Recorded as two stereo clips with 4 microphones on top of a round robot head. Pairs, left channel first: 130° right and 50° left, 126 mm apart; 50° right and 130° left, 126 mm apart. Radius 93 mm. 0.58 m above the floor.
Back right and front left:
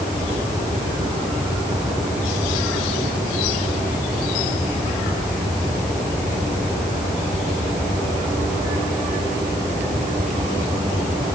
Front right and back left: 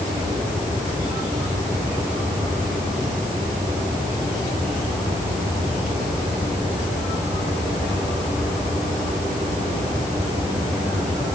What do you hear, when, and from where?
Only background noise.